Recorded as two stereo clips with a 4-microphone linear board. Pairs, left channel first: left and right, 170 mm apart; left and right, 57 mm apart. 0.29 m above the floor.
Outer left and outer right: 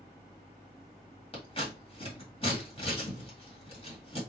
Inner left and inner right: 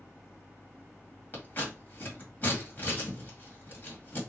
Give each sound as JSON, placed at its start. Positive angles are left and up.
{"t": 1.3, "sound": "scissors", "side_deg": 35, "distance_m": 1.8}